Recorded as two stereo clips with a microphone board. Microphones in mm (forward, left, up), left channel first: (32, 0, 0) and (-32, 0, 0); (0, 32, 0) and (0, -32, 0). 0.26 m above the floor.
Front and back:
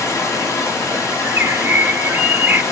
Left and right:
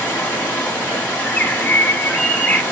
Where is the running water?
30° left, 2 m.